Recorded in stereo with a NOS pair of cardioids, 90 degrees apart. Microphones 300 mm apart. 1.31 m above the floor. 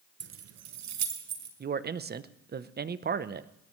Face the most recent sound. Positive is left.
turn(degrees=-35)